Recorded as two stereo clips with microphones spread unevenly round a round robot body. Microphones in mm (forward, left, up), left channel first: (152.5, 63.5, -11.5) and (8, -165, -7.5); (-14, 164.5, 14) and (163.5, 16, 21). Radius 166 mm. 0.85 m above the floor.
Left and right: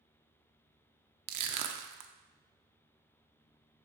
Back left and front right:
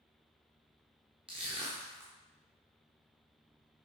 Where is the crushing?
115° right, 0.6 m.